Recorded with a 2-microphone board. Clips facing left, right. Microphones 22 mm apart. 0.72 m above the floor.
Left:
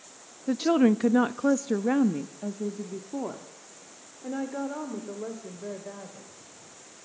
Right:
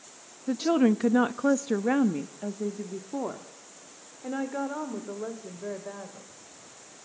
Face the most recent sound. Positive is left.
turn(degrees=-20)  # may be behind; listen again after turning